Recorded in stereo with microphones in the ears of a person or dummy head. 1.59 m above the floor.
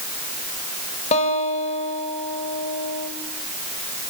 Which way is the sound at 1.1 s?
40° left (ahead or behind).